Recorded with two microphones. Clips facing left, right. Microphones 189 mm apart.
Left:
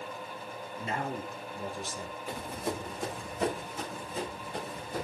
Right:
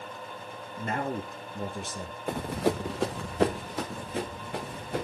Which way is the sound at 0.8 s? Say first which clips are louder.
Right 4 dB; 55° right (ahead or behind).